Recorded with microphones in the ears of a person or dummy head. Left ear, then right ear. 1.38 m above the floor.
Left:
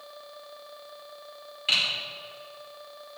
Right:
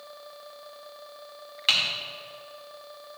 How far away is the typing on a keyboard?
About 2 m.